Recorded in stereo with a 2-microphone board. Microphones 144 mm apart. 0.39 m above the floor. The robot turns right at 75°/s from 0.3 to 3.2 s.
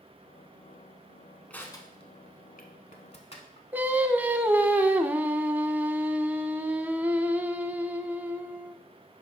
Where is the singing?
15° right (ahead or behind), 0.5 m.